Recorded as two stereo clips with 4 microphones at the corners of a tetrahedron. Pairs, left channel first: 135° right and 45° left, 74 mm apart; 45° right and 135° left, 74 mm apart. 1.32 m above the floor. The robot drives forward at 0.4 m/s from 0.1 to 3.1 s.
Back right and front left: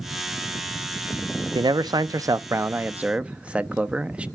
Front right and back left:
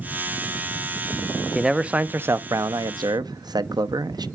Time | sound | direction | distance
1.6 | a man speaking | 55° left | 0.6 m